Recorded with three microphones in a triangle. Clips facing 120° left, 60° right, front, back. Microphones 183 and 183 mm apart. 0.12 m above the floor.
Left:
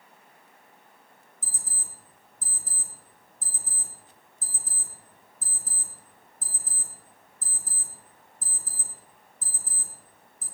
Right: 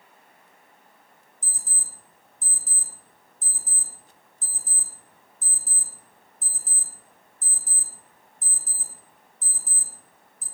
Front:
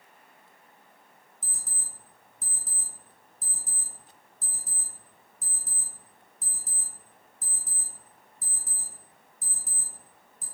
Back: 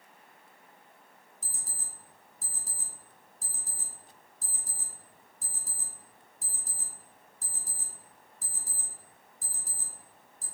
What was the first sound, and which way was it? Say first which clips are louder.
An alarm clock: left 1 dB, front 1 dB; 80° left.